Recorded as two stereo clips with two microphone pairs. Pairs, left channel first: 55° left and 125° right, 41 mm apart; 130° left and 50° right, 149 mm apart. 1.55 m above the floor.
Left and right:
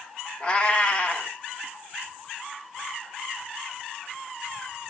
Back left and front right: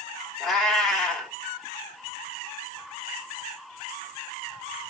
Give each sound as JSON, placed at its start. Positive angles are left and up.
{"t": 0.4, "sound": "a cat meowing", "azimuth_deg": 45, "distance_m": 1.1}